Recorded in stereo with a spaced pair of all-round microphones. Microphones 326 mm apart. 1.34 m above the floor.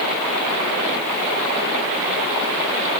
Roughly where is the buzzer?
I don't hear a buzzer.